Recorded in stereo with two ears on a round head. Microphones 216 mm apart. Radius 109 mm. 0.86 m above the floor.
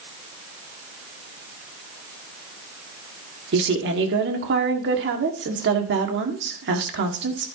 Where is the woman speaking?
50° right (ahead or behind), 1.9 m.